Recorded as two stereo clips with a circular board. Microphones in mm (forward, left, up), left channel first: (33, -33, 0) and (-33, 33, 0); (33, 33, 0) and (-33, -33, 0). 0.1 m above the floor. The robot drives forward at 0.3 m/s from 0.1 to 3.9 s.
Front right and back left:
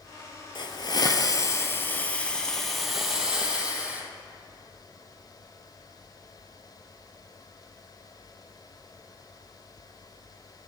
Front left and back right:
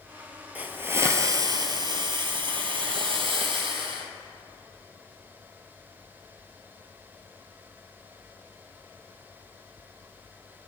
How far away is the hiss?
About 0.6 m.